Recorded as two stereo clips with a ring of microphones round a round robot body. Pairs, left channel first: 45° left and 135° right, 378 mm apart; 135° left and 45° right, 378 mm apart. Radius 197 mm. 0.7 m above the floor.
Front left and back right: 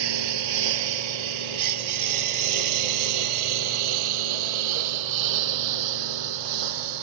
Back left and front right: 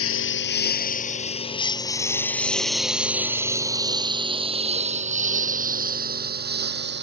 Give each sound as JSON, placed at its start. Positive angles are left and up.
{"t": 0.0, "sound": "a lawn mower", "azimuth_deg": -165}